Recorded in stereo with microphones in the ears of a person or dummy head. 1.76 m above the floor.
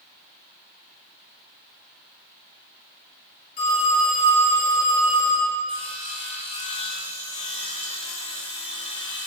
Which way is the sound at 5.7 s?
35° left (ahead or behind).